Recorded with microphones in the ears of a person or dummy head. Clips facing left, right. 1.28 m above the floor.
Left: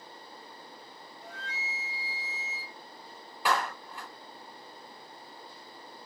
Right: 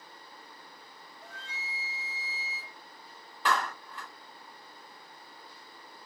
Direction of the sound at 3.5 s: 10° left (ahead or behind).